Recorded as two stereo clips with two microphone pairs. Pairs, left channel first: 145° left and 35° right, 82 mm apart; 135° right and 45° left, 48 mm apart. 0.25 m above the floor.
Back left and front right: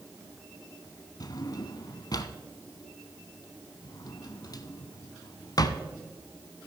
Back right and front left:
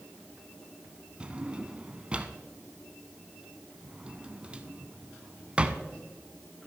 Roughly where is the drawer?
Behind left.